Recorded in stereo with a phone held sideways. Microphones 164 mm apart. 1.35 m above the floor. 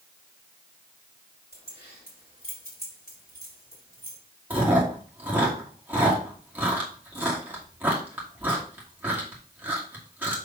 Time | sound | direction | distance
1.5 | keys jangling | 80° left | 3.5 m
4.5 | chewing | 10° right (ahead or behind) | 2.5 m